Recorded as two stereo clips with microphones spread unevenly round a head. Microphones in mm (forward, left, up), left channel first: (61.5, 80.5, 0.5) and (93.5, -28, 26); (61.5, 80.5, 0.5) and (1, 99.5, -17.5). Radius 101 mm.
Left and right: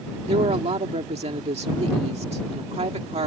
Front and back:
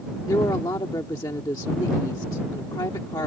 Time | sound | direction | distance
0.3 | a woman speaking | 50° right | ?